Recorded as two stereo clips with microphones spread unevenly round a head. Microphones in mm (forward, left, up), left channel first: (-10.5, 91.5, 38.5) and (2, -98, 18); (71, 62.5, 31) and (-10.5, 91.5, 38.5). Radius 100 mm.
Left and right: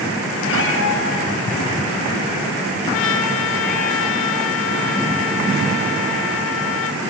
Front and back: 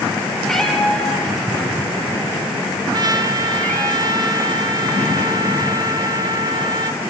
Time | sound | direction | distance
0.4 | a cat meowing | 65° left | 6.5 m
2.9 | a trumpet | 120° left | 2.5 m